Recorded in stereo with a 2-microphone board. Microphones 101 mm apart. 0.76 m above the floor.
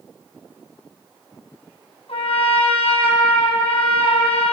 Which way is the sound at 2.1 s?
80° left.